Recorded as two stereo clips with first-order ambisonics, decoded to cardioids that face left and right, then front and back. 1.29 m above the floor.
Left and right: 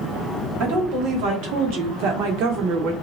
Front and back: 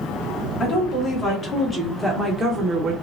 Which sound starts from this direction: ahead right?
A woman speaking, at 0.6 s.